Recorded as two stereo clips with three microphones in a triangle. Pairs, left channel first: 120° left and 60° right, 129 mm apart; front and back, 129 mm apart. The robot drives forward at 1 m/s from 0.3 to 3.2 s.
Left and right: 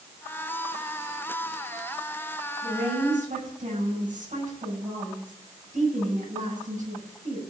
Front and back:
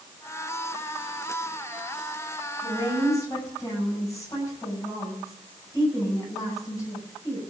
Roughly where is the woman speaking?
Ahead right.